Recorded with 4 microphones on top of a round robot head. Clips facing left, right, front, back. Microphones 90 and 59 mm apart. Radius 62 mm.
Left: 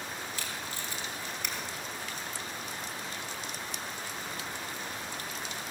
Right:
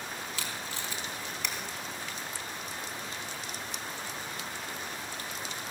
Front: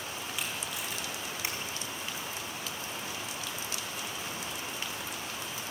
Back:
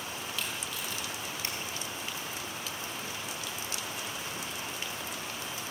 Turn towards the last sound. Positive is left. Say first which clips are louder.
# right 1 dB, front 1 dB
turn(degrees=-80)